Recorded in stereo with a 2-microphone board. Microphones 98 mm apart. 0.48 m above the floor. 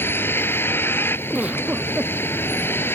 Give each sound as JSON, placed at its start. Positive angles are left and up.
{"t": 0.0, "sound": "a vehicle", "side_deg": 25}
{"t": 1.3, "sound": "a giggle", "side_deg": -15}